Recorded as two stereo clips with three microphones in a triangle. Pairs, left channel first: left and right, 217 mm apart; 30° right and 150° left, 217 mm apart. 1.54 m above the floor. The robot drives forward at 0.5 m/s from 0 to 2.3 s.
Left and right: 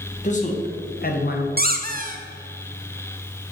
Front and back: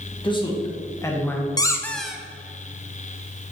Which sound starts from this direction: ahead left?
A man speaking, at 0.2 s.